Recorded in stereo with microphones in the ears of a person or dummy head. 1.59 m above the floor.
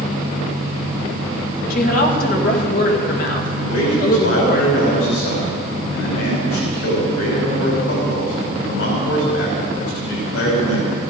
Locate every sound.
1.7 s a woman speaking: 55° left (ahead or behind), 2.5 m
3.6 s a man speaking: 75° left (ahead or behind), 6.5 m